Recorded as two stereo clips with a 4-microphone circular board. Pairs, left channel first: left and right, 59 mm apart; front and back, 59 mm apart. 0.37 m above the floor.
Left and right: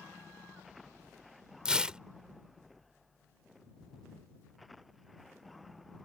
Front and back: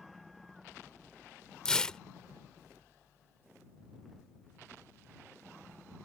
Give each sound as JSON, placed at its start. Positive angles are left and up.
{"t": 1.6, "sound": "tearing paper", "azimuth_deg": -50}